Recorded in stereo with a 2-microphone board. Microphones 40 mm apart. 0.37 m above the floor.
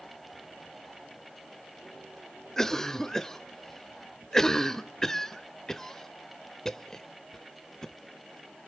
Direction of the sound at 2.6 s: 15° left (ahead or behind).